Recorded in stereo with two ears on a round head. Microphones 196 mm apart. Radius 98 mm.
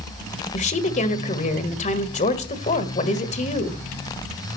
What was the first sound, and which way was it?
A woman speaking, 35° left (ahead or behind).